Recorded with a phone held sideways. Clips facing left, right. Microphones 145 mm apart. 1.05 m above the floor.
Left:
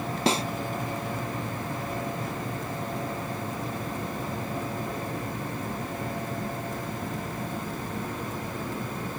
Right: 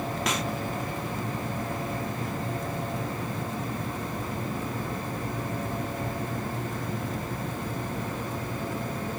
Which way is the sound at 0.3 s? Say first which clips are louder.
Left 7 dB; 30° left (ahead or behind).